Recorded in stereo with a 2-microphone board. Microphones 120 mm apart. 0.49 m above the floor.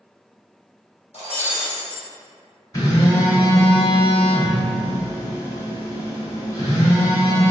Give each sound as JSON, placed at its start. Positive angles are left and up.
{"t": 1.1, "sound": "breaking glass", "side_deg": 65, "distance_m": 1.2}
{"t": 2.7, "sound": "a phone buzzing", "side_deg": 30, "distance_m": 1.0}